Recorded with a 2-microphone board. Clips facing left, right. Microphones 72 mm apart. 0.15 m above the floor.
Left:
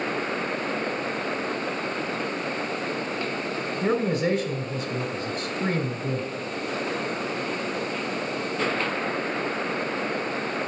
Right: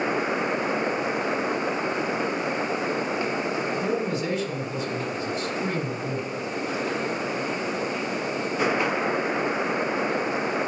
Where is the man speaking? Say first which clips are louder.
Left 2 dB; 30° left (ahead or behind), 1.2 m.